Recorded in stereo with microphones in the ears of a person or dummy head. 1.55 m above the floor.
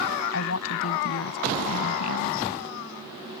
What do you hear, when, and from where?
0.3 s a woman speaking: 80° left